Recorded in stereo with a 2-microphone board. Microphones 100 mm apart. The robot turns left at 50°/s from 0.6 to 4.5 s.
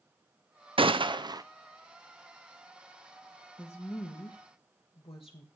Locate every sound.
0.8 s a gunshot: 100° right, 0.6 m; by 1.4 s 135° right, 0.6 m
3.6 s a woman speaking: 165° left, 1.3 m; by 5.5 s 120° left, 1.3 m